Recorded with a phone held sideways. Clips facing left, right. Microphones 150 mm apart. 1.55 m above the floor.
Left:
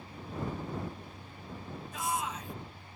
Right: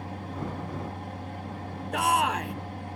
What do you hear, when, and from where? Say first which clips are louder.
0.0 s a fan: right 4 dB; 80° right
1.9 s a shout: right 10 dB; 70° right (ahead or behind)